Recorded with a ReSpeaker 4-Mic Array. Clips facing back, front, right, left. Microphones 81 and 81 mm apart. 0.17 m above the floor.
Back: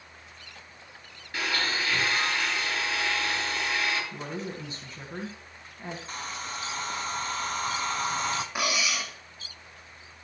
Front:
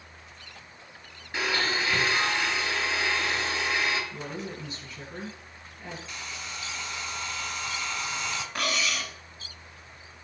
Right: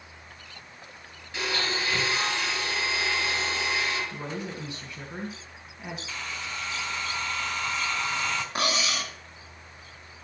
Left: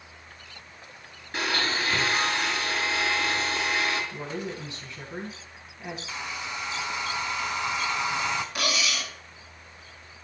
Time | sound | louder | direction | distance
1.3 | a blender | front 2 dB, left 2 dB | 65° left | 2.5 m
4.1 | a woman speaking | back 1 dB, left 1 dB | 145° right | 1.9 m
6.1 | a hair dryer | back 3 dB, left 2 dB | 155° left | 0.7 m
8.6 | cutlery clinking | back 1 dB, right 1 dB | 110° right | 1.0 m